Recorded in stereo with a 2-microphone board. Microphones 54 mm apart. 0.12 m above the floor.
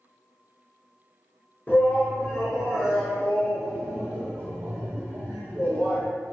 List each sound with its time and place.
1.7 s a shout: 30° left (ahead or behind), 1.4 m; by 6.0 s 40° right (ahead or behind), 3 m